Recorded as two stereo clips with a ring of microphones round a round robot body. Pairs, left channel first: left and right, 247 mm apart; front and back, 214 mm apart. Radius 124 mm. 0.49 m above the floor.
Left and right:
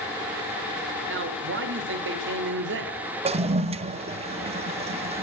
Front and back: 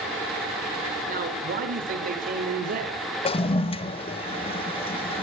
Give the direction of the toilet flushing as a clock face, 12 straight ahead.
1 o'clock.